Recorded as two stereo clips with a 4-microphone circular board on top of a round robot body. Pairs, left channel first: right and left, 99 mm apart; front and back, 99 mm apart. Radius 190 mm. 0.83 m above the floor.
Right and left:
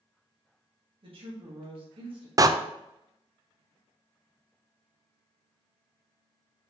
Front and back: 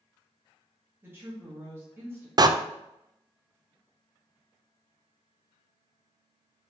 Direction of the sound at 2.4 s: 140° left.